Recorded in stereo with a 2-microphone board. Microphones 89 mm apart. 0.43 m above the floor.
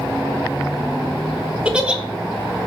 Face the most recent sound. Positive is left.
turn(degrees=-10)  # may be behind; listen again after turning